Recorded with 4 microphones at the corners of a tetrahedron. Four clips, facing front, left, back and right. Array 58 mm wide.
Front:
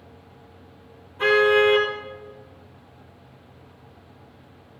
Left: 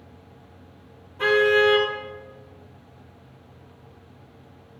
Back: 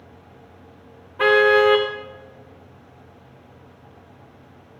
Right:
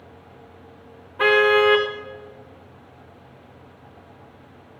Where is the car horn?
135° right, 4.5 m.